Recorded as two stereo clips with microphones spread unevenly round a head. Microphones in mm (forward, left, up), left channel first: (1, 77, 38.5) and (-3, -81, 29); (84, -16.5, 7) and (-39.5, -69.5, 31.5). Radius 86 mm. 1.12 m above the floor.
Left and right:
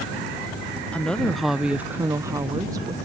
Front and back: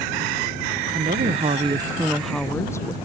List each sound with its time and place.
0.9 s a woman speaking: 175° left; by 3.0 s 30° right